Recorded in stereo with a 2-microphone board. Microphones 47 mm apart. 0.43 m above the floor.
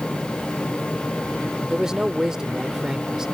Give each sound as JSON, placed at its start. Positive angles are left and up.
{"t": 1.7, "sound": "a man speaking", "side_deg": -15}